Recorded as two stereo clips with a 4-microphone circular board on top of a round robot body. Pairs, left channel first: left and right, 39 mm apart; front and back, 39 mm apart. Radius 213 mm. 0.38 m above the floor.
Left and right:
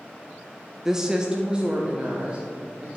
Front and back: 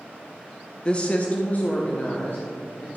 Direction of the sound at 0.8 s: 25° right.